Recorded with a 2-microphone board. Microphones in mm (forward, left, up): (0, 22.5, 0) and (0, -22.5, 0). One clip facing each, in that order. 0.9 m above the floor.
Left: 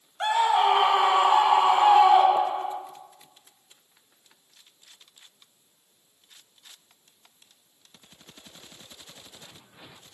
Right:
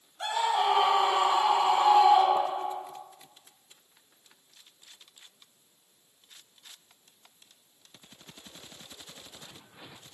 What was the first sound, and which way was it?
A scream, 45° left (ahead or behind).